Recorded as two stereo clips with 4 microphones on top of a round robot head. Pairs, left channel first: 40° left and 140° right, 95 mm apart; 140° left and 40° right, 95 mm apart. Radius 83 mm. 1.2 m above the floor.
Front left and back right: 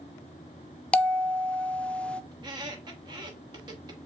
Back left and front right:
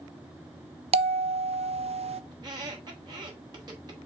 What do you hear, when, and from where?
0.9 s a bell: 35° right, 0.5 m
2.3 s a squeak: 90° right, 1.1 m